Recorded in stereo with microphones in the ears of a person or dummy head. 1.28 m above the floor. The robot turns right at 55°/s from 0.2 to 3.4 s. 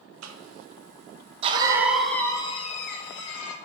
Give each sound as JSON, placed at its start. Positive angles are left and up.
{"t": 0.2, "sound": "a cough", "side_deg": -85, "distance_m": 1.2}